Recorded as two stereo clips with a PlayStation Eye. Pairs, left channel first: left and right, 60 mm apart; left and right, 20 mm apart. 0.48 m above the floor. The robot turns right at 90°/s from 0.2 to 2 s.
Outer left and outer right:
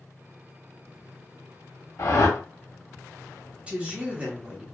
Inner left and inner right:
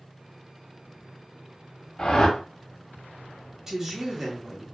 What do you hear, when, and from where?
2.0 s a whoosh: 60° left (ahead or behind), 0.7 m
3.7 s a woman speaking: 20° right (ahead or behind), 1.0 m